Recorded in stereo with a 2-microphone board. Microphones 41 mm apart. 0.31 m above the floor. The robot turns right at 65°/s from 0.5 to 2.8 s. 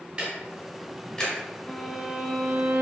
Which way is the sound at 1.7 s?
170° left.